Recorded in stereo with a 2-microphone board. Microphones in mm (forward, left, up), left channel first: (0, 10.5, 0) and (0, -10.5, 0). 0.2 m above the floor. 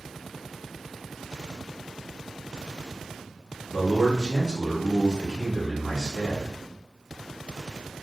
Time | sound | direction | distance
3.7 | a man speaking | 25° right (ahead or behind) | 1.3 m